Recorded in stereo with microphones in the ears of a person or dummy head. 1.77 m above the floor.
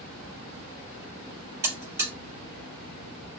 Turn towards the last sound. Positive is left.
turn(degrees=-15)  # may be behind; listen again after turning